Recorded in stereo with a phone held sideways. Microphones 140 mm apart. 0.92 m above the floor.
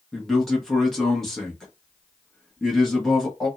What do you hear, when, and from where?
0.1 s a man speaking: 5° left (ahead or behind), 1.1 m